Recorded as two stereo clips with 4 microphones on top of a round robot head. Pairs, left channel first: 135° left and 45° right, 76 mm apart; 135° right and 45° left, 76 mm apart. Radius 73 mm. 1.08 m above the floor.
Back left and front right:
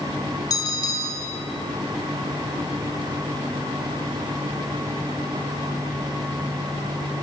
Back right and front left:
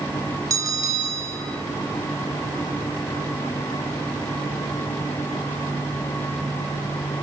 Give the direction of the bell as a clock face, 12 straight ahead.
9 o'clock.